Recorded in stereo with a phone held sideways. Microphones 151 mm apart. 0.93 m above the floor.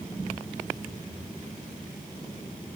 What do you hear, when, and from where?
Only background noise.